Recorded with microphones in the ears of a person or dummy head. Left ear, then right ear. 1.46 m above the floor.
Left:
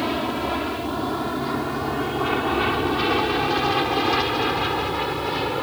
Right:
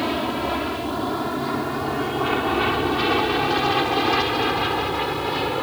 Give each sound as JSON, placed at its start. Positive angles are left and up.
{"t": 0.0, "sound": "an aircraft", "side_deg": -5}